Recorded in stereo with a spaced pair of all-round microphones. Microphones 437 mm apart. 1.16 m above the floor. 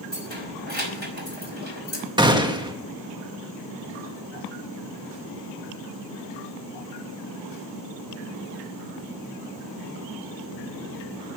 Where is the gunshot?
10° right (ahead or behind), 1.3 m.